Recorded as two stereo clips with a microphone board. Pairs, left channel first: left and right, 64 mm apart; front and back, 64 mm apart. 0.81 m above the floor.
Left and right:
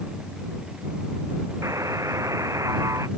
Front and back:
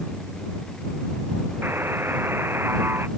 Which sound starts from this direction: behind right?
A buzzer, at 1.6 s.